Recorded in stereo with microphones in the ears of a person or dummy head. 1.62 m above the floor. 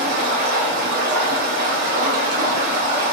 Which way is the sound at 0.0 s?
50° right (ahead or behind).